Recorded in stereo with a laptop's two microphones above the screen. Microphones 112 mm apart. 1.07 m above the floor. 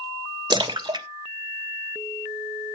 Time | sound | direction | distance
0.5 | a splash | 40° right (ahead or behind) | 1.0 m